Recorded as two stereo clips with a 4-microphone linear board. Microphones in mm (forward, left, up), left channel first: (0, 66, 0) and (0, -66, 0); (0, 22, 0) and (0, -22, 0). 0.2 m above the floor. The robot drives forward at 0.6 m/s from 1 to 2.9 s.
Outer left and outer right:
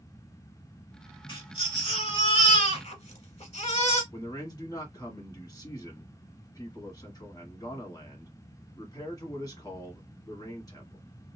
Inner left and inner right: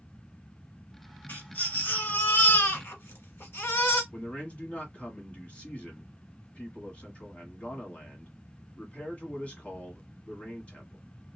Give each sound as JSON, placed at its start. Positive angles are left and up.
{"t": 1.3, "sound": "a baby crying", "side_deg": 35, "distance_m": 2.0}
{"t": 4.1, "sound": "a man speaking", "side_deg": 30, "distance_m": 1.4}